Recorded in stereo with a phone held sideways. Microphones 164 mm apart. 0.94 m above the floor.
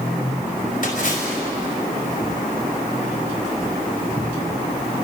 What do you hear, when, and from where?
0.8 s a splash: 55° left (ahead or behind), 4.5 m